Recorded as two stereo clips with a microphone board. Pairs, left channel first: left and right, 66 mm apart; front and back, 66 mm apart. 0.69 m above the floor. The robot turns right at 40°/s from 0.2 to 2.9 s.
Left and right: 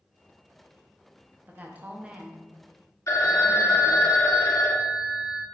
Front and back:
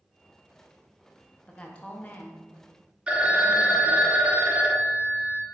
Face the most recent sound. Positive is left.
turn(degrees=115)